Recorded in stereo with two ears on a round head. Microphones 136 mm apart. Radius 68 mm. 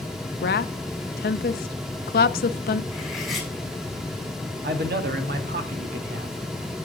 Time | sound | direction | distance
0.4 | a woman speaking | 70° left (ahead or behind) | 0.7 m
2.9 | cutlery clinking | centre (ahead or behind) | 3 m
4.6 | a man speaking | 70° right (ahead or behind) | 1.7 m